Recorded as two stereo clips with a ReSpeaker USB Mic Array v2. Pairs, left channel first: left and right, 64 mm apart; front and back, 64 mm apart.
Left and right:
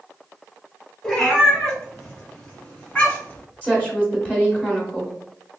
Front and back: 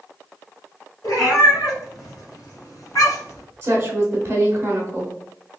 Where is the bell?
I don't hear a bell.